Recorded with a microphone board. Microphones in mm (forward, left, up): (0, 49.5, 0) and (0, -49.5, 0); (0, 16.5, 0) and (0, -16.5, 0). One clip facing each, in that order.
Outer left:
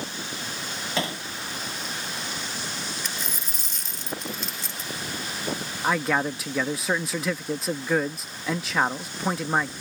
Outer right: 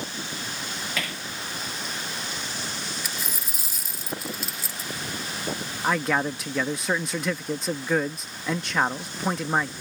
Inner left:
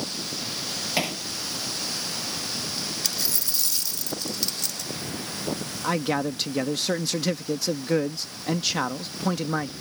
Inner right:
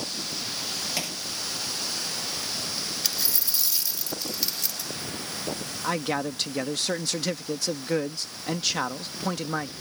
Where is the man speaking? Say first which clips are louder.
Even, inner left 2 dB; 5° left (ahead or behind).